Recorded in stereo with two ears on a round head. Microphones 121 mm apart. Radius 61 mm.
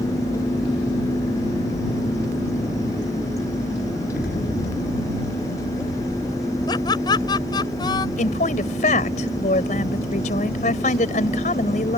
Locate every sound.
4.1 s an explosion: 75° left (ahead or behind)
6.7 s laughter: 35° left (ahead or behind)
8.2 s a woman speaking: 55° left (ahead or behind)